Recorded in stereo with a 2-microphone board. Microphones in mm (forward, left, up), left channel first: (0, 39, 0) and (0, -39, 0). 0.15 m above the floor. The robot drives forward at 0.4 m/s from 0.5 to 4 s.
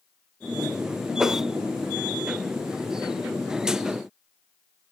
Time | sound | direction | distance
1.2 | a whoosh | 5° right (ahead or behind) | 0.5 m